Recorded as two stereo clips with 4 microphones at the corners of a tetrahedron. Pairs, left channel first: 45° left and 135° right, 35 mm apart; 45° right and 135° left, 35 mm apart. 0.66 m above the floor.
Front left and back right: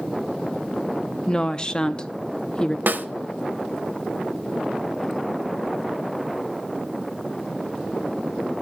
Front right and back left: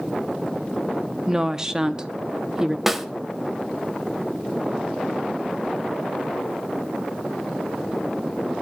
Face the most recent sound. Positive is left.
turn(degrees=-140)